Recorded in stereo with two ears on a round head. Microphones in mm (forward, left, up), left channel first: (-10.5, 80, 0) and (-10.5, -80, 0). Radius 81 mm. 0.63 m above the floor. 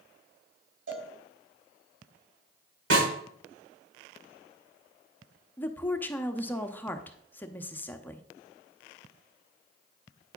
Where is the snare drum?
75° right (ahead or behind), 4 m.